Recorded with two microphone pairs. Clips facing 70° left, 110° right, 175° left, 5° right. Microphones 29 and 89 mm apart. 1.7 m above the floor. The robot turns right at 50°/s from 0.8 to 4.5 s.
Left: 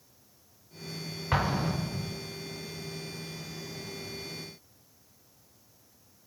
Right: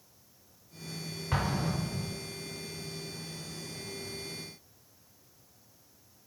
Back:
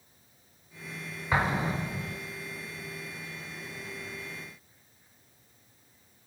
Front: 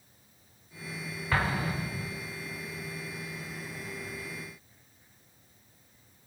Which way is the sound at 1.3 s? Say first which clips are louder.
Left 3 dB, back 2 dB; 115° left.